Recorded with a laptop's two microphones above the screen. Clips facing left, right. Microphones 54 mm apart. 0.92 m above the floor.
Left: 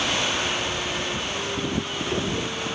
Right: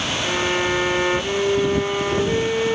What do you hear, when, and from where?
0.2 s a violin: 70° right (ahead or behind)